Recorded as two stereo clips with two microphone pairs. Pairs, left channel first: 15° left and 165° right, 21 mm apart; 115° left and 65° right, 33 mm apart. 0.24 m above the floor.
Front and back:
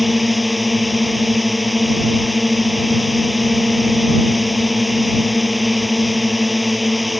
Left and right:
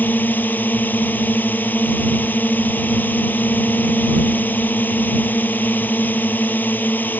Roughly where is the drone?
Left.